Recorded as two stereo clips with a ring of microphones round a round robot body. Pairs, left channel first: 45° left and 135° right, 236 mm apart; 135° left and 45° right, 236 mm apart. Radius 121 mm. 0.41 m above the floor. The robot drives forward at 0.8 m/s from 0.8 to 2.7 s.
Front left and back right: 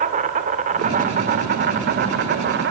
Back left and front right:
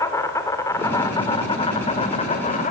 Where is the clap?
I don't hear a clap.